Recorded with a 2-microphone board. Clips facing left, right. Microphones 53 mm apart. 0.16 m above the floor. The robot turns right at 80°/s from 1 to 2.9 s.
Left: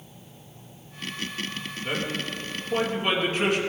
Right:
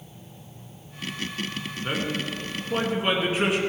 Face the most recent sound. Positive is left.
turn(degrees=-25)